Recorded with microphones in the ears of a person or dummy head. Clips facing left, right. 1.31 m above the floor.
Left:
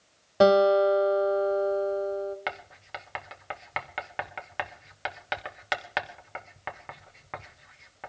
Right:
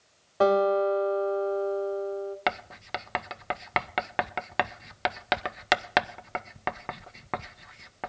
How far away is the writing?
About 0.7 m.